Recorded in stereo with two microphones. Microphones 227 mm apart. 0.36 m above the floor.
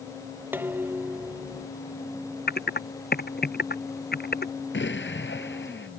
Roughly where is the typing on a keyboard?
Left.